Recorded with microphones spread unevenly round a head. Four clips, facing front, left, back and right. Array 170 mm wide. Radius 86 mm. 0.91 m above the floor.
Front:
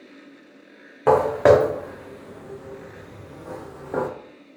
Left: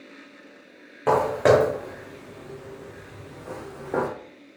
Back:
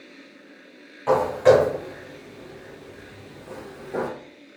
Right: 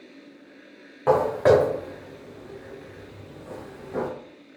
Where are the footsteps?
25° left, 3 m; by 4.1 s 65° left, 2.5 m.